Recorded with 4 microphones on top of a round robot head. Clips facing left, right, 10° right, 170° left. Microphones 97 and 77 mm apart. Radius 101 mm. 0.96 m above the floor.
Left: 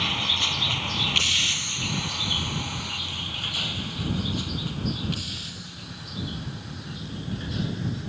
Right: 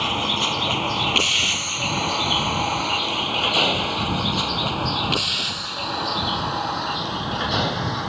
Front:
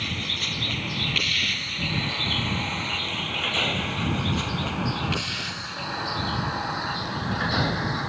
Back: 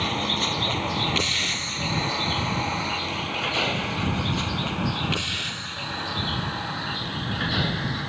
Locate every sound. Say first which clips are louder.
0.0 s a vehicle: right 7 dB, back 6 dB; 135° right; by 8.1 s 85° right